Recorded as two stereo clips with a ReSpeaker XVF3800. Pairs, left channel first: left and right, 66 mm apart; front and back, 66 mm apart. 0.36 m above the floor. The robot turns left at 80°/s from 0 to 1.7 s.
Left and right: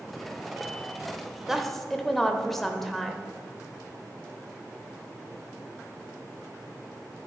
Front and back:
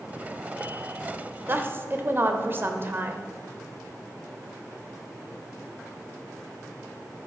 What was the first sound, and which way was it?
A woman speaking, 170° right.